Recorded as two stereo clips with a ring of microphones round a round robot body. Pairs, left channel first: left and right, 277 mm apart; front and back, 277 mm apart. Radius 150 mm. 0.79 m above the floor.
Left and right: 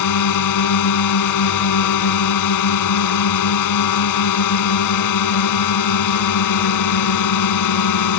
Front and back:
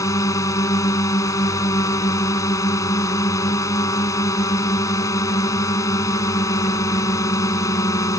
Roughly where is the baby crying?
I don't hear a baby crying.